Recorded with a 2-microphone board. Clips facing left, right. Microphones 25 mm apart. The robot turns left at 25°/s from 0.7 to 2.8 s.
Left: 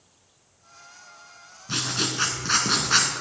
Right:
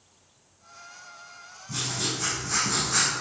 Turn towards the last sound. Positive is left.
turn(degrees=55)  # may be behind; listen again after turning